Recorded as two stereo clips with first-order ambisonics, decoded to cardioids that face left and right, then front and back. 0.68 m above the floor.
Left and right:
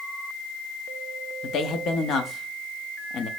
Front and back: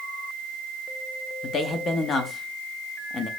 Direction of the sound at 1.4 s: 55° left.